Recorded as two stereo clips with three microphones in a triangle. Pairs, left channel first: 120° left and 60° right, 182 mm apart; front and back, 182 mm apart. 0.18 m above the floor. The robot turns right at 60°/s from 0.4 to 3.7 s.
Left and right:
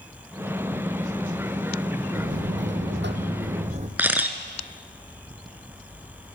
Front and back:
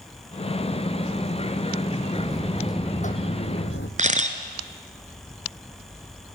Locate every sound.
2.1 s a buzzer: 100° right, 2 m; by 3.9 s 10° right, 2 m
4.0 s a camera shutter: 140° right, 1.9 m